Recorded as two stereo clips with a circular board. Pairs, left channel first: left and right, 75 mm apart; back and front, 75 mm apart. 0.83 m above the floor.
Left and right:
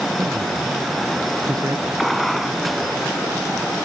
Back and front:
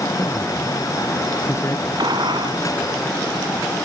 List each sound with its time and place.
0.2 s a man speaking: 125° right
2.0 s a gunshot: straight ahead